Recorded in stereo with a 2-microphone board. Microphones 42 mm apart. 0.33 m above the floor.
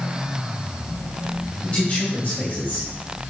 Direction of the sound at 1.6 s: 35° left (ahead or behind).